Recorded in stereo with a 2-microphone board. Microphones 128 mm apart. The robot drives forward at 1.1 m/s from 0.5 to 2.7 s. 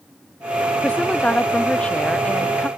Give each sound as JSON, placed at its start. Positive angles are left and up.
{"t": 0.8, "sound": "a woman speaking", "side_deg": 10}